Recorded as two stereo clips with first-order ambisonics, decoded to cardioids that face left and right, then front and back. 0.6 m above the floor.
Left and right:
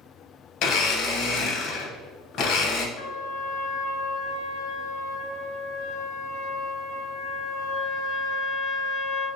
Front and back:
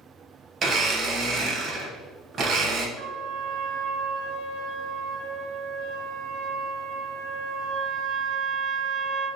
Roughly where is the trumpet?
Left.